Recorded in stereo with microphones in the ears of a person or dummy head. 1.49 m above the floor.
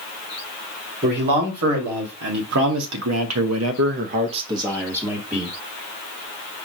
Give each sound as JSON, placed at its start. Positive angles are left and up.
{"t": 1.0, "sound": "a man speaking", "side_deg": -50, "distance_m": 2.0}